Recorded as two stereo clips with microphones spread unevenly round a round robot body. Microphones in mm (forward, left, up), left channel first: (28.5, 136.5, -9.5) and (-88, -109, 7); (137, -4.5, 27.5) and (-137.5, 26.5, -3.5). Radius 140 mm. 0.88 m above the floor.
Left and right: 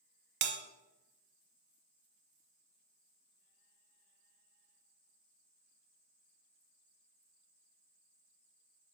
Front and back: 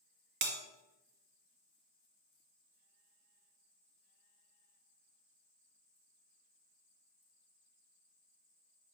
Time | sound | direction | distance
0.4 | a bell | 140° right | 1.0 m